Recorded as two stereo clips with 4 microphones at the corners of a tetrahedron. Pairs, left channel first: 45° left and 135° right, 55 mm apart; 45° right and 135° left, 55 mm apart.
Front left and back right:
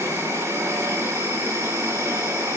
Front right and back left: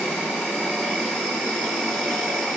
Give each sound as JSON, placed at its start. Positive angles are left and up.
{"t": 0.0, "sound": "an insect", "azimuth_deg": -120, "distance_m": 8.5}